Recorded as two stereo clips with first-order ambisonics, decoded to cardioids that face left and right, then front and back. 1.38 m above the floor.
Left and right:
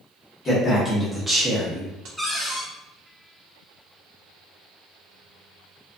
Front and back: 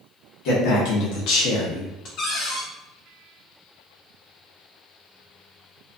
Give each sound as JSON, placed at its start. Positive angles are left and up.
{"t": 0.5, "sound": "a man speaking", "azimuth_deg": 20, "distance_m": 1.0}
{"t": 2.2, "sound": "a cupboard door", "azimuth_deg": 0, "distance_m": 0.7}